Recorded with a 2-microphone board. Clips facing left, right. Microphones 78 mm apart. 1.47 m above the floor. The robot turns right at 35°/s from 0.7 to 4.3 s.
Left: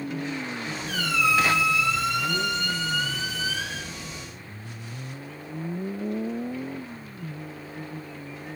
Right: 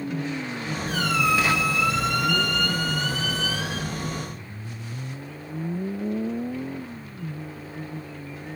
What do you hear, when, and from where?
0.9 s a squeak: 35° right, 0.8 m; by 3.9 s 70° left, 0.8 m